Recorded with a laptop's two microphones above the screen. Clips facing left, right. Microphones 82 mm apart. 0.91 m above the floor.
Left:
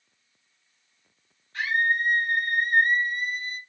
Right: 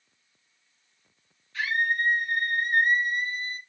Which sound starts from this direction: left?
A scream, at 1.5 s.